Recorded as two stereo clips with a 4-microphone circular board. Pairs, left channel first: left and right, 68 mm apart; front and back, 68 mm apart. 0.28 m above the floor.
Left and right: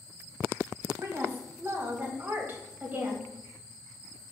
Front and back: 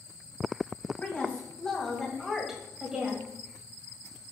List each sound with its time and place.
1.0 s a woman speaking: 60° right, 1.8 m; by 3.3 s 135° right, 1.5 m